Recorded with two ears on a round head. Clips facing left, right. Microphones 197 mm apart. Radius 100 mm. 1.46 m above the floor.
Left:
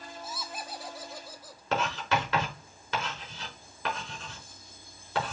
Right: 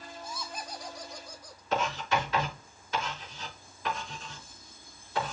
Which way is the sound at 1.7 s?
60° left (ahead or behind).